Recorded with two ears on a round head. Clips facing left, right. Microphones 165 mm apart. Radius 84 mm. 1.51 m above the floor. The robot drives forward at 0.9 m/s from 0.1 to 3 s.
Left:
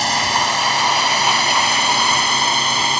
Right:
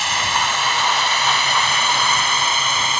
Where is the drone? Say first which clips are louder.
Left 3 dB; 35° left (ahead or behind).